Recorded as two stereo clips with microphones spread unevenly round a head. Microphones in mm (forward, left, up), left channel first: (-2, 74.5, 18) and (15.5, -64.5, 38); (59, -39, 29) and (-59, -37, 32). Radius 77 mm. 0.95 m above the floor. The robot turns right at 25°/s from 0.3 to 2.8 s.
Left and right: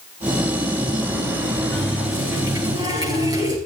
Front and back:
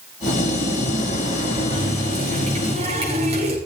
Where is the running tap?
175° right, 6 m; by 3.6 s 145° right, 6 m.